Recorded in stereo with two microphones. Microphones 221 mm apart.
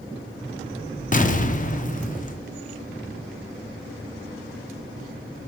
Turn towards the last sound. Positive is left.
turn(degrees=35)  # may be behind; listen again after turning